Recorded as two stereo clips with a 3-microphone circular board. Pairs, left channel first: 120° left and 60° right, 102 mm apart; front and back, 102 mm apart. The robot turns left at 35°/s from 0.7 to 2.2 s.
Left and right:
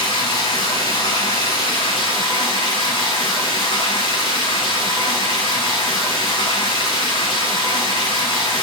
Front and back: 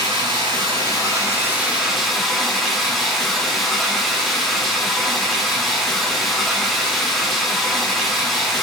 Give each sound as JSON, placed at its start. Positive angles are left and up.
{"t": 0.0, "sound": "running water", "azimuth_deg": 140, "distance_m": 8.5}